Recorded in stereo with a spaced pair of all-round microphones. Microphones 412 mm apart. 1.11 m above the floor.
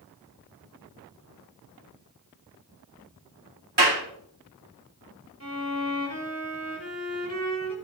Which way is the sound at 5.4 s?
35° left (ahead or behind).